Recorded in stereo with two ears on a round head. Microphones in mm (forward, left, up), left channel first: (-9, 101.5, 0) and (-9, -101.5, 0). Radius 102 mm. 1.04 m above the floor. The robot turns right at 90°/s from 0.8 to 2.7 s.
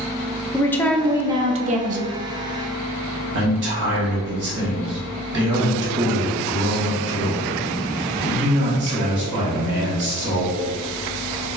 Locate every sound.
0.5 s a woman speaking: 165° left, 0.5 m; by 2.2 s 70° right, 0.5 m
3.3 s a man speaking: 50° right (ahead or behind), 1.6 m